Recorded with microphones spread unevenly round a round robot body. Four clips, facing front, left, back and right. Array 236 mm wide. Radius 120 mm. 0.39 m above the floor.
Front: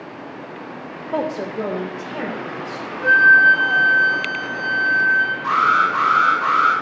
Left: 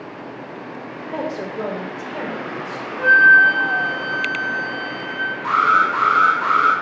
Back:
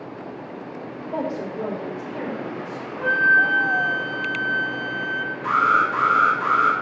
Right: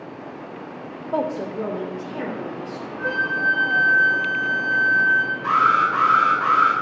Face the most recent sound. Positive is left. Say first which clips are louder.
# left 2 dB, front 1 dB
turn(degrees=140)